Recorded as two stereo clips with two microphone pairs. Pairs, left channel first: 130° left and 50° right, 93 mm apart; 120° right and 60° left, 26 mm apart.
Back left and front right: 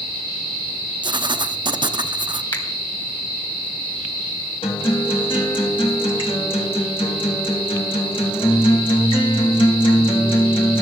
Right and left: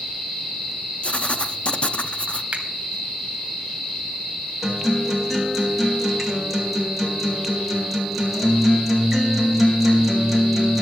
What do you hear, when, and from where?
1.0 s writing: 80° right, 0.6 m
2.5 s a finger snap: 95° left, 2 m
4.6 s a guitar: 145° left, 2 m